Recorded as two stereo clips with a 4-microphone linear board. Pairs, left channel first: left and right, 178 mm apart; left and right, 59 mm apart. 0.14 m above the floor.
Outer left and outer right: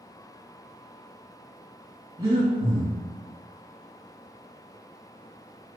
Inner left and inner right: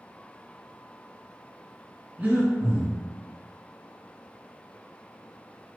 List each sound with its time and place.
2.2 s breathing: 20° right (ahead or behind), 1.8 m